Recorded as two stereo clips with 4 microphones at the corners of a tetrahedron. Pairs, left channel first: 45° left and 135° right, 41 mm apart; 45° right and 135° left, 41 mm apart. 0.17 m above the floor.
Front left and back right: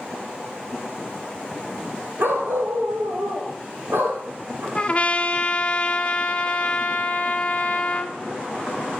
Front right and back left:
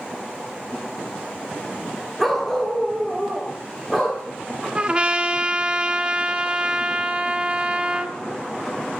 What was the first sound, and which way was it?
A dog barking, 130° right.